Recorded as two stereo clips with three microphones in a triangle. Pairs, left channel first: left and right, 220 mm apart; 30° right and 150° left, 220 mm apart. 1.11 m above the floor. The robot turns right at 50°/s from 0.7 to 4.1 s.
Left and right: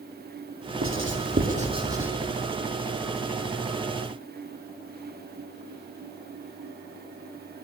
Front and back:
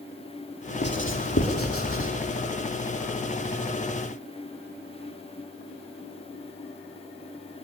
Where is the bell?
I don't hear a bell.